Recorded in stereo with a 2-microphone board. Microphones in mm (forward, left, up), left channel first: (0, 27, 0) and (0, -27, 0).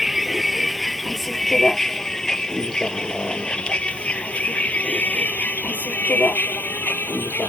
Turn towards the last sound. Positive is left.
turn(degrees=40)  # may be behind; listen again after turning